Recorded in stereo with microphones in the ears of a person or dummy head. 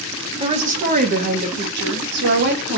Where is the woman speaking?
30° right (ahead or behind), 0.7 m; by 2.8 s 65° right (ahead or behind), 1.9 m.